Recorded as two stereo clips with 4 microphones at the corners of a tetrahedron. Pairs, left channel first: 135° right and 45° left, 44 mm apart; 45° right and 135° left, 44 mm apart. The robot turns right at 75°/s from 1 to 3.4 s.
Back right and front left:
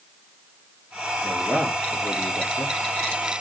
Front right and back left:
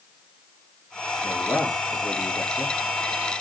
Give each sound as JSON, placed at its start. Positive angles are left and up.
{"t": 1.2, "sound": "a man speaking", "azimuth_deg": -35, "distance_m": 5.5}